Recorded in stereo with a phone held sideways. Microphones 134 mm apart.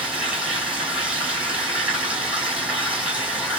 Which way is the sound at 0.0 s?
10° right (ahead or behind).